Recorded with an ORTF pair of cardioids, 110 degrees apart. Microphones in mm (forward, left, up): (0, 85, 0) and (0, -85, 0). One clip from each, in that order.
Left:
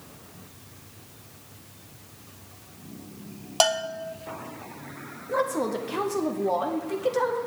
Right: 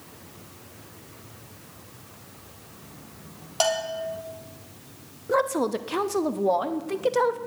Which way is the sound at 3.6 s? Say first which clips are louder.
Left 1 dB; 35° left.